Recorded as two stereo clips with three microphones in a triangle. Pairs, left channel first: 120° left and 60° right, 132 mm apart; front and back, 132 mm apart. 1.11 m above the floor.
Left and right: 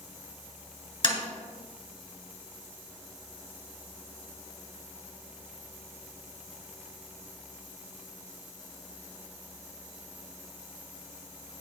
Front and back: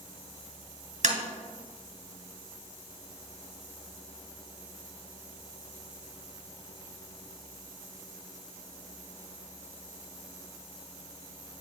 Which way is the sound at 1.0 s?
165° left.